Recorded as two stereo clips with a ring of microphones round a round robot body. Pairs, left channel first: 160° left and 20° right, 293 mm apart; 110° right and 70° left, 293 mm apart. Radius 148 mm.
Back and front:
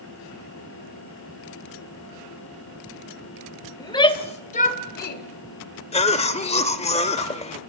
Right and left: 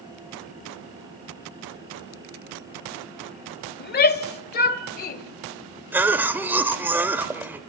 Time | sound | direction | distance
3.8 | a shout | 135° right | 1.4 m
5.9 | a cough | 140° left | 1.0 m